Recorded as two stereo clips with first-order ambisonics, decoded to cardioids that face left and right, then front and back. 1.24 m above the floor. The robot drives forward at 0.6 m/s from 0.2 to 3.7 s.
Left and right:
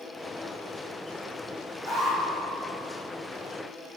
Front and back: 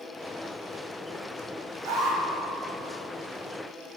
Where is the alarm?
165° right, 3.5 m.